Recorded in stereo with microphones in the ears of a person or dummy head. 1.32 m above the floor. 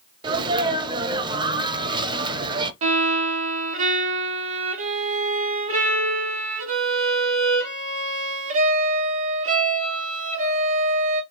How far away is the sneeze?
About 0.7 m.